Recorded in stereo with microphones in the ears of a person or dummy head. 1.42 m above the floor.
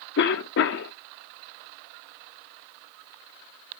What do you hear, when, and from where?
0.2 s a cough: 70° left (ahead or behind), 0.9 m